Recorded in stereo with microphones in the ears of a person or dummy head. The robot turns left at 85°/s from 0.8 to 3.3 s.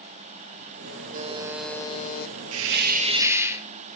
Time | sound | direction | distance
1.1 | a buzzer | 135° right | 1.0 m
2.5 | a hiss | 100° right | 0.8 m